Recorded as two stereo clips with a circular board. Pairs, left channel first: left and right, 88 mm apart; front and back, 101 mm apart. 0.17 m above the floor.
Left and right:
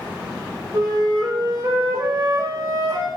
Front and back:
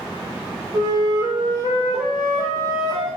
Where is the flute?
125° right, 4.5 m.